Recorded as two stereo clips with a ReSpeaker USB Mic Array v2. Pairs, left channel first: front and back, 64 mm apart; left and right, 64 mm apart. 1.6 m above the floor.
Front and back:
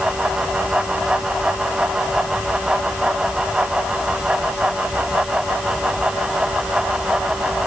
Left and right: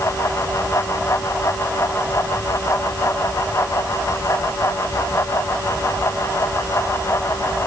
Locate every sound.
Only background noise.